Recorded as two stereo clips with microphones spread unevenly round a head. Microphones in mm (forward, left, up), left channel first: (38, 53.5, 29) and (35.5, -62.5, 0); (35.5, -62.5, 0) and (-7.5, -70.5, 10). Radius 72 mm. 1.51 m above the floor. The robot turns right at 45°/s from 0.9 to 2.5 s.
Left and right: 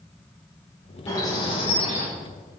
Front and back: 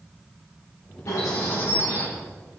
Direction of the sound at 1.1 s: 25° left.